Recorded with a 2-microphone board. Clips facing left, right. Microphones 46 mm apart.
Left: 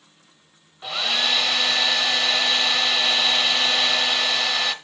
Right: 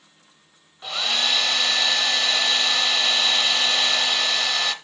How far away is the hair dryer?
About 0.8 m.